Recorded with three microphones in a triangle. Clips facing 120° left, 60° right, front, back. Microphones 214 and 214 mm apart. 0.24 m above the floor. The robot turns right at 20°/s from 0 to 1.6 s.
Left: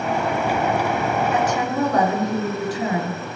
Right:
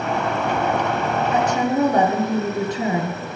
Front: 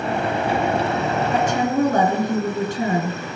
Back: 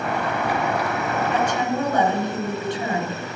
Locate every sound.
1.3 s a woman speaking: 15° right, 2 m; by 3.2 s 5° right, 2 m